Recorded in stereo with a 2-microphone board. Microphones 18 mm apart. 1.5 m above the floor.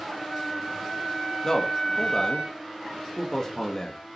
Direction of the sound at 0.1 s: 15° left (ahead or behind).